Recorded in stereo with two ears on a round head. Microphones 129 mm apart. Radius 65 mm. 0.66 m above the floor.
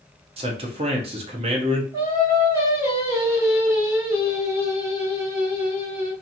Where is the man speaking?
40° right (ahead or behind), 0.7 m.